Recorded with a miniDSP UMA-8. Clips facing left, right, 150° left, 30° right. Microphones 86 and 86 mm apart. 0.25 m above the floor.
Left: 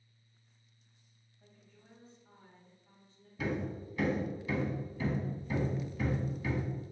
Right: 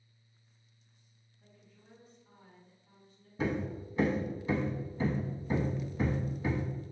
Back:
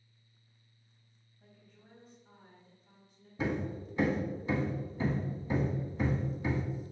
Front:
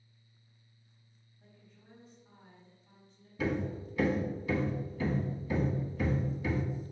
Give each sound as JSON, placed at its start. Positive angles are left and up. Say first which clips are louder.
{"t": 1.4, "sound": "a woman speaking", "louder": "even, even", "azimuth_deg": 75, "distance_m": 1.7}
{"t": 3.4, "sound": "hammering", "louder": "right 2 dB, front 1 dB", "azimuth_deg": -150, "distance_m": 0.5}